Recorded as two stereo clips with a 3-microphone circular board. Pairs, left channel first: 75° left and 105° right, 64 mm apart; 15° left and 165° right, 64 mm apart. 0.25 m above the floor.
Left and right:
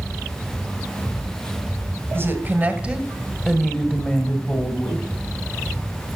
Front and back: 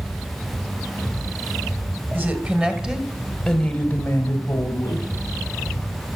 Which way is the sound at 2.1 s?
130° right.